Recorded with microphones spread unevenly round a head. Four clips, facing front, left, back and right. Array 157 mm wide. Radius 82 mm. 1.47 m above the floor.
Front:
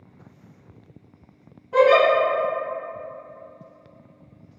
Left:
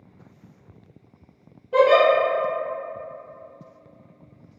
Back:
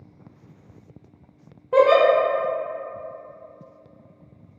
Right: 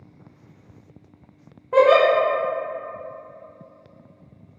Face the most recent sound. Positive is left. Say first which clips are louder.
# right 1 dB, even
turn(degrees=-150)